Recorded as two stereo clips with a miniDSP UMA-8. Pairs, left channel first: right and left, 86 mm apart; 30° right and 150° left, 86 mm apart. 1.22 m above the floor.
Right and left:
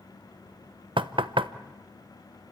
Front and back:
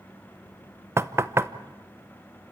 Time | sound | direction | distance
1.0 | knocking | 90° left | 0.7 m